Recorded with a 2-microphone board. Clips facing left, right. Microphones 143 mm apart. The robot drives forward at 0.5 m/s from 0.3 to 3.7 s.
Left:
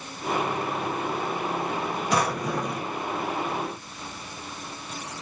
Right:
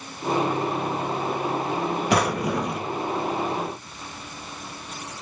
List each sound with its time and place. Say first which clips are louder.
2.1 s a drawer: right 2 dB; 70° right (ahead or behind), 1.4 m; by 2.9 s 75° right (ahead or behind), 1.3 m